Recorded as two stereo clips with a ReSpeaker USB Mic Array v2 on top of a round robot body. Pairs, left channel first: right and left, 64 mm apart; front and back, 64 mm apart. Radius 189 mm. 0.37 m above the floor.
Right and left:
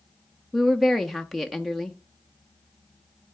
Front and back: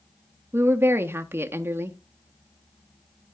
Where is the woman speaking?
Straight behind, 0.9 m.